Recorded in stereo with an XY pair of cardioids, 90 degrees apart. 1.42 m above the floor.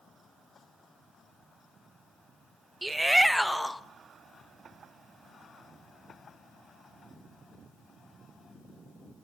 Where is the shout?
15° right, 1.1 m; by 3.8 s 10° left, 1.7 m.